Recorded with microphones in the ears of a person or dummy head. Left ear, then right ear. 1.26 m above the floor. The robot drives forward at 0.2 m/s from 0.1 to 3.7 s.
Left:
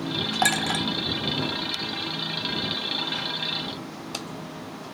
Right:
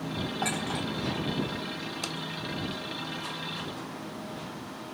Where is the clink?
75° left (ahead or behind), 1.1 m.